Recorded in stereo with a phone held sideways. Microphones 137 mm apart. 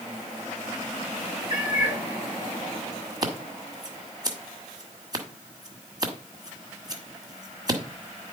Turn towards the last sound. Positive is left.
turn(degrees=-30)  # may be behind; listen again after turning